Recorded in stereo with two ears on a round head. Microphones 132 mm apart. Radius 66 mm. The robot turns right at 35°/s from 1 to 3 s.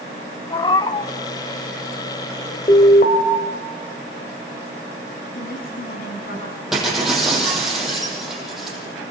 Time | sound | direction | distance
0.5 | a cat meowing | 30° left (ahead or behind) | 1.3 m
2.7 | an alarm | 35° left (ahead or behind) | 3 m
5.3 | a woman speaking | 65° left (ahead or behind) | 5.5 m
6.7 | breaking glass | 5° right (ahead or behind) | 7.5 m